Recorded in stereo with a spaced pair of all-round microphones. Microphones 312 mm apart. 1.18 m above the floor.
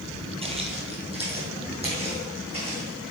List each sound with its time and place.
0.4 s footsteps: 20° right (ahead or behind), 1.7 m